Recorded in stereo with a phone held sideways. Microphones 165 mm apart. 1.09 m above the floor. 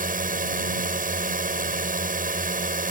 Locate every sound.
0.0 s a drone: 60° right (ahead or behind)